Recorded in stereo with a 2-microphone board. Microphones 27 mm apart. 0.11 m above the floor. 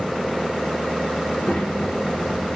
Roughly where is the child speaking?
Left.